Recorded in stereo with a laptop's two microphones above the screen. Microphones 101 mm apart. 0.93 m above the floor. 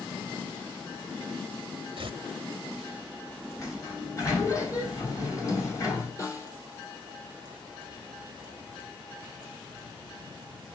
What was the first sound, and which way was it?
Tearing paper, 65° right (ahead or behind).